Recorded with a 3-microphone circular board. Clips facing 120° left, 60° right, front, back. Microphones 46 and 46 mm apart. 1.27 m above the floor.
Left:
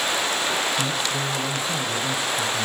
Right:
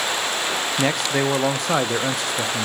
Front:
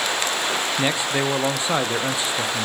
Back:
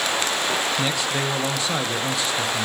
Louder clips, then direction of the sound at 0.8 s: Right 4 dB, front 2 dB; 70° right.